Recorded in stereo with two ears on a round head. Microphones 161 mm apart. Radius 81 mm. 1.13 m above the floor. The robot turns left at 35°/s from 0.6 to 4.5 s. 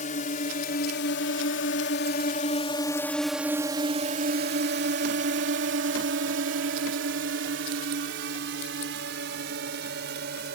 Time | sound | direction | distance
0.0 | a drone | 45° left (ahead or behind) | ?